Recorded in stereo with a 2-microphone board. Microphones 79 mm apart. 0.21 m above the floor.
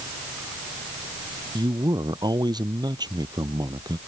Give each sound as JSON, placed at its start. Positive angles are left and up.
{"t": 1.6, "sound": "a man speaking", "side_deg": -80}